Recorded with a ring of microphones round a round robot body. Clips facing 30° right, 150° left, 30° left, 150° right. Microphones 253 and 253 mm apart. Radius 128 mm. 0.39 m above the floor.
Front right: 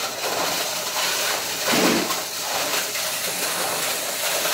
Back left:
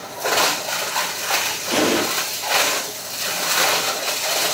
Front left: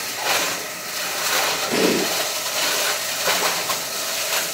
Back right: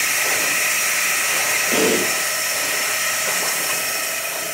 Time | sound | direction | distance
1.7 | an explosion | 25° right | 8 m